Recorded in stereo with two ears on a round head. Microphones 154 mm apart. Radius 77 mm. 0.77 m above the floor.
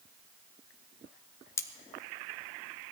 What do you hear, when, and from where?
1.6 s cutlery clinking: 15° left (ahead or behind), 0.7 m